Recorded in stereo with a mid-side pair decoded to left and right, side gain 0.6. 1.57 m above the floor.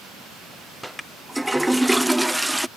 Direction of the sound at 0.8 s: 5° right.